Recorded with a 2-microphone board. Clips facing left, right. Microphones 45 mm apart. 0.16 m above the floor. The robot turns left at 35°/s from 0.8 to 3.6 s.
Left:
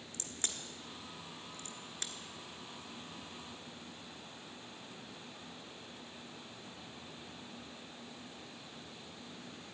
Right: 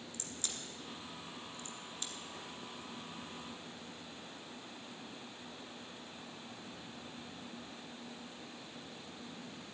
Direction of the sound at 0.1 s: 45° left (ahead or behind).